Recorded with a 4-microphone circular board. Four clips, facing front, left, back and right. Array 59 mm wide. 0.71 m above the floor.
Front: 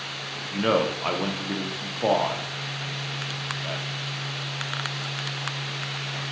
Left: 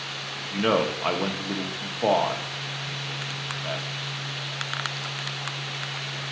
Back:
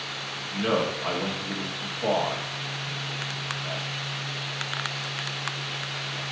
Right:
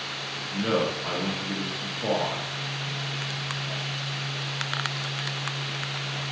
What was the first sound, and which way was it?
A man speaking, 60° left.